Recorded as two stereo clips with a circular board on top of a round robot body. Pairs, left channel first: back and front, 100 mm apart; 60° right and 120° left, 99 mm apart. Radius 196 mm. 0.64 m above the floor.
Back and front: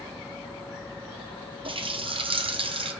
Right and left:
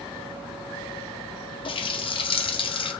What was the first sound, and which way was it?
A running tap, 30° right.